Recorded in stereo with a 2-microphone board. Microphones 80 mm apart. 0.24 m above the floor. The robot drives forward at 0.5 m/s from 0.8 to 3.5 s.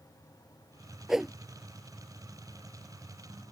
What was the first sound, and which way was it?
A whoosh, 5° right (ahead or behind).